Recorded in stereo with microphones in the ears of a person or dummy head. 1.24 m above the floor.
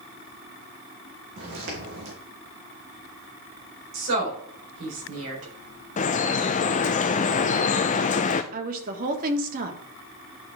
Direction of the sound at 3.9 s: 70° right (ahead or behind).